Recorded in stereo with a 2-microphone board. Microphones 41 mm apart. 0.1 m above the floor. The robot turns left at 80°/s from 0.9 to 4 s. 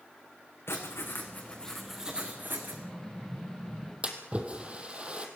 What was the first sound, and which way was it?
Writing, 80° left.